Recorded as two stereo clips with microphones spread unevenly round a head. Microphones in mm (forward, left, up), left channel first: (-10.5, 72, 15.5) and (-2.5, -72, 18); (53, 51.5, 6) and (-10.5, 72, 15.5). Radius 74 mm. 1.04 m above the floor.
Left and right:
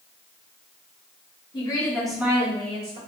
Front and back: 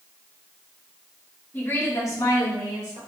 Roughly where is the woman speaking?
Ahead left.